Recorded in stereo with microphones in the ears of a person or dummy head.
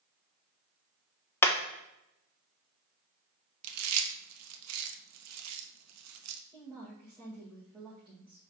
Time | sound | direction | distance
1.4 | hammering | 10° left (ahead or behind) | 1.1 m
3.6 | chewing | 80° right | 0.9 m
6.5 | a woman speaking | 5° right (ahead or behind) | 2.5 m